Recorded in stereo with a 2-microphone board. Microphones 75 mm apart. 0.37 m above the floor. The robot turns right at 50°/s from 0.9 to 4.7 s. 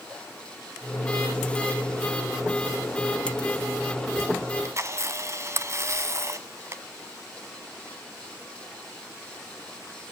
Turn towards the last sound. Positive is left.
turn(degrees=-40)  # may be behind; listen again after turning